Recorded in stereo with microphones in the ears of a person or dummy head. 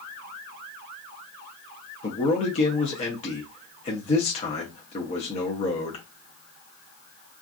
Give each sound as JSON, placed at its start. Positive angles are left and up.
{"t": 2.0, "sound": "a man speaking", "side_deg": 35, "distance_m": 0.6}